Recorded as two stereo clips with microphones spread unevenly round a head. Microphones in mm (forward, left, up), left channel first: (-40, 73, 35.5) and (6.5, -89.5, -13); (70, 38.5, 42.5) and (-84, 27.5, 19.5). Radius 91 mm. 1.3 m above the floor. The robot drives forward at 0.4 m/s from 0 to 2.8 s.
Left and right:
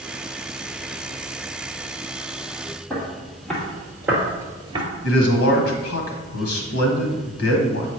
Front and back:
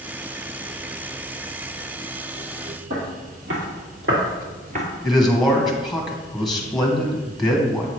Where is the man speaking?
95° left, 1.3 m.